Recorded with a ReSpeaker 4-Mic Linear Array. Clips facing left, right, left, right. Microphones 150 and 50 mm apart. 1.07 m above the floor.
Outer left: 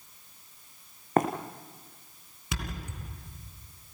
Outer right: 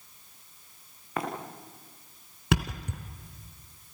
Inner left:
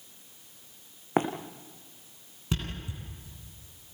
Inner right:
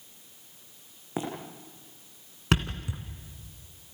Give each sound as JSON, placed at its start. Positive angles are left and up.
{"t": 1.2, "sound": "running footsteps", "side_deg": 45, "distance_m": 3.0}
{"t": 2.5, "sound": "a thud", "side_deg": -70, "distance_m": 3.0}